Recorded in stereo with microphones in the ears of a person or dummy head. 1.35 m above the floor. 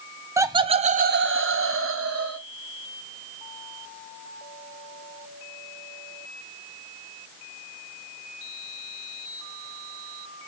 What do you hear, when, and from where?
0.4 s laughter: 15° right (ahead or behind), 0.7 m; by 2.4 s 70° right (ahead or behind), 1.2 m